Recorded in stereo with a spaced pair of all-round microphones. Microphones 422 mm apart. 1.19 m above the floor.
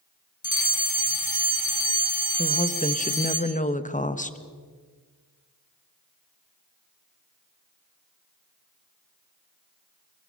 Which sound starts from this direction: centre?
A woman speaking, at 2.4 s.